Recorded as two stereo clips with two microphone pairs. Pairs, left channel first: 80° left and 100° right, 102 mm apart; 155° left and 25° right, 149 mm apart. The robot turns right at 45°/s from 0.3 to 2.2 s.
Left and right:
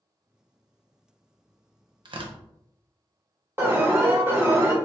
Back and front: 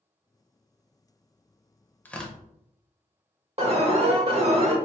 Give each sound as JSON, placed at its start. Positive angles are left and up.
{"t": 2.0, "sound": "tearing paper", "azimuth_deg": -135, "distance_m": 0.6}
{"t": 3.6, "sound": "an alarm", "azimuth_deg": -45, "distance_m": 0.9}